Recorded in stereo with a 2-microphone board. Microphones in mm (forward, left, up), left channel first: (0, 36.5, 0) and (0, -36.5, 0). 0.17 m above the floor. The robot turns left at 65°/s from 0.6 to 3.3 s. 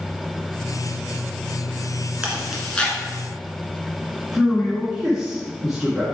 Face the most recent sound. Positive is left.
turn(degrees=-5)  # may be behind; listen again after turning